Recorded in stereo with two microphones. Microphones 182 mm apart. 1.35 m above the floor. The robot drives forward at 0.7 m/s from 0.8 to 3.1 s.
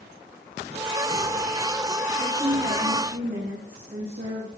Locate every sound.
2.2 s a woman speaking: 65° right (ahead or behind), 5 m; by 4.5 s 55° right (ahead or behind), 5 m